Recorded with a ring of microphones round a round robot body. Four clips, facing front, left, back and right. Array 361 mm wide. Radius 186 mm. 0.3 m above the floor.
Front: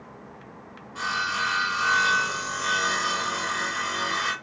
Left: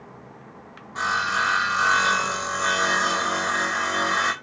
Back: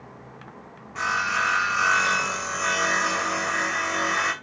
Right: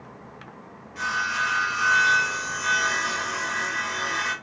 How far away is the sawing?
About 0.7 m.